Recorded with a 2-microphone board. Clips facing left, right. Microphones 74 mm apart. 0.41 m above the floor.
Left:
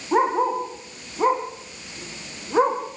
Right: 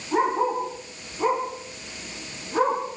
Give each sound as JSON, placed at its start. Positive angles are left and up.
{"t": 0.1, "sound": "a dog barking", "side_deg": 35, "distance_m": 7.5}